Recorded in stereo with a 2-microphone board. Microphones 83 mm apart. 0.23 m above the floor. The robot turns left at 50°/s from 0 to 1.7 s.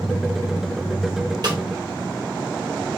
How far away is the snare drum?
About 2 m.